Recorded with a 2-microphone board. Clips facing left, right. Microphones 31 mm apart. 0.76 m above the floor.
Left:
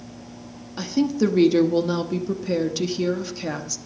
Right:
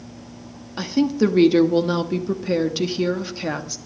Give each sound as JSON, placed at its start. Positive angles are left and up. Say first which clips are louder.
{"t": 0.8, "sound": "a woman speaking", "louder": "right 2 dB", "side_deg": -20, "distance_m": 1.1}